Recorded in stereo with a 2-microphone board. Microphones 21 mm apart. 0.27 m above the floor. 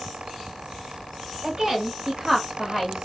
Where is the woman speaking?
35° right (ahead or behind), 1.8 m; by 3.0 s centre (ahead or behind), 1.8 m.